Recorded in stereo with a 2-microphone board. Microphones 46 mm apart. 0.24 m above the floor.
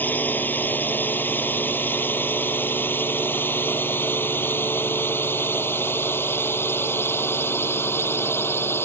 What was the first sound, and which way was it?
A drone, 45° left (ahead or behind).